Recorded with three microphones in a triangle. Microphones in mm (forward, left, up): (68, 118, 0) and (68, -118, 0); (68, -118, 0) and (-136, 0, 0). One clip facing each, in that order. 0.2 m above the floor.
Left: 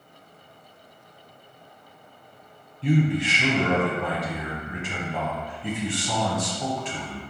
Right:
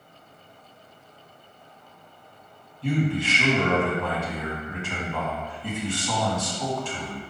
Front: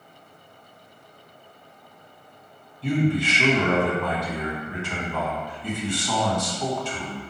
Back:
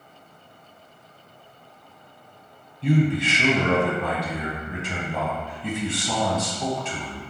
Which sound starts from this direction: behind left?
A man speaking, at 2.8 s.